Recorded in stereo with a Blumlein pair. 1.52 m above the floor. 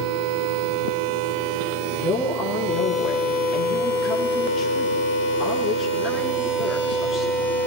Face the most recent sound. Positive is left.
turn(degrees=25)